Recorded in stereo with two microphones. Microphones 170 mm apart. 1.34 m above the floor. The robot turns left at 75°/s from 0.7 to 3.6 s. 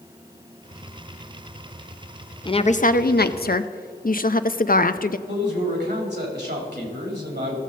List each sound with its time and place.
2.5 s a woman speaking: 150° left, 0.5 m; by 5.2 s 65° left, 0.5 m
5.3 s a man speaking: 80° right, 3.5 m